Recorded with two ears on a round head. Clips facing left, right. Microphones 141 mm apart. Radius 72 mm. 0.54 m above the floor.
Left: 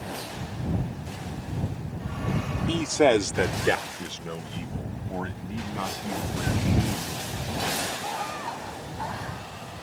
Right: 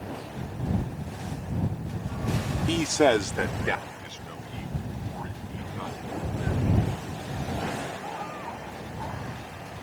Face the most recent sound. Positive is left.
turn(degrees=80)